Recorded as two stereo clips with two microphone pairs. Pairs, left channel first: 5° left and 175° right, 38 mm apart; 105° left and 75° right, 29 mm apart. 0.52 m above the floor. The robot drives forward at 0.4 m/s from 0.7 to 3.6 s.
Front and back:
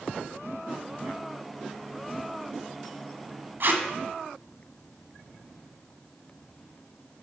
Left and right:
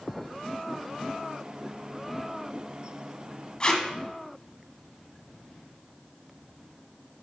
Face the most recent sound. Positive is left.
turn(degrees=160)